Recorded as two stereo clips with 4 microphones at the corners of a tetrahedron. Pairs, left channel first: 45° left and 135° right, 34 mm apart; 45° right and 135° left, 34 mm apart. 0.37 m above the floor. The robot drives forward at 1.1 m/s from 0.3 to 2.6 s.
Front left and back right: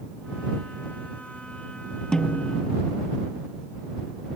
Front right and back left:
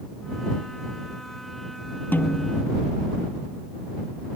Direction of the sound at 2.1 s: 25° right.